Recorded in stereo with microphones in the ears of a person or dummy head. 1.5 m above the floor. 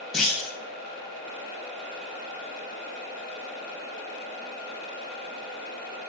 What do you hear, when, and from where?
0.1 s a clunk: centre (ahead or behind), 0.8 m